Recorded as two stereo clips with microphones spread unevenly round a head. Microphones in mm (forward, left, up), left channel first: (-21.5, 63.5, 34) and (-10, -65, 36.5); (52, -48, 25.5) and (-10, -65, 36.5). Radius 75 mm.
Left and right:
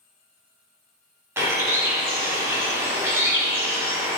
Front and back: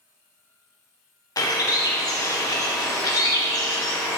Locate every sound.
1.4 s a bird: 10° right, 1.2 m